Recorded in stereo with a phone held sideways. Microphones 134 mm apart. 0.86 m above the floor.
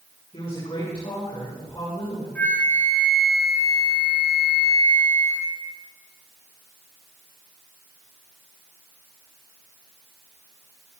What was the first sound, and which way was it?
A woman speaking, 40° left (ahead or behind).